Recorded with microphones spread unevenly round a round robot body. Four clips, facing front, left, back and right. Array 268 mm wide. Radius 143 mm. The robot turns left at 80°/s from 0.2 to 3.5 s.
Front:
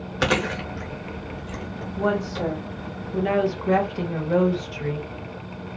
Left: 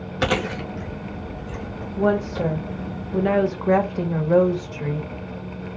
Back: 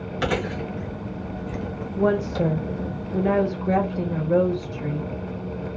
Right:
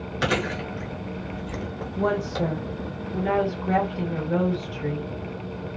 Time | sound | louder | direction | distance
0.2 | chewing | left 3 dB, front 2 dB | 55° left | 0.8 m
2.0 | a woman speaking | left 4 dB, back 3 dB | 165° right | 0.9 m